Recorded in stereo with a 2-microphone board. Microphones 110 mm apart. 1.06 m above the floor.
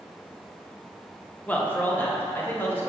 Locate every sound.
1.5 s a man speaking: 15° left (ahead or behind), 1.1 m; by 2.9 s 20° left (ahead or behind), 1.8 m